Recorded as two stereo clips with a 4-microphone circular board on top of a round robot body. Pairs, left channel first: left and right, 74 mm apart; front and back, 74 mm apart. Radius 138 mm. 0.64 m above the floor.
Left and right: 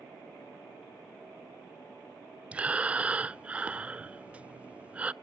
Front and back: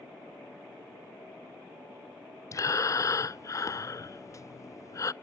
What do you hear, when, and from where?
2.5 s breathing: 25° right, 0.6 m